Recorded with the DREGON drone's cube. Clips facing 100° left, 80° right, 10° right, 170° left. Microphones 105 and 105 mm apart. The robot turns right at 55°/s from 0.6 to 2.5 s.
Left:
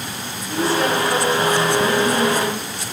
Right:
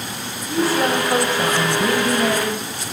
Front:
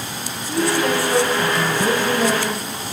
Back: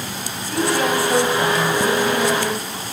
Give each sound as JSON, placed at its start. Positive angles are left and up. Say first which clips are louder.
{"t": 0.5, "sound": "a woman speaking", "louder": "right 1 dB, even", "azimuth_deg": -175, "distance_m": 5.0}